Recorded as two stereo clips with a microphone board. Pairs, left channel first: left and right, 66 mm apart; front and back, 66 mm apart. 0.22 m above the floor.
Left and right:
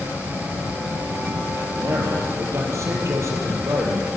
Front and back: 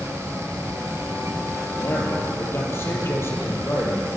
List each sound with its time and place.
1.6 s a man speaking: 50° right, 6.5 m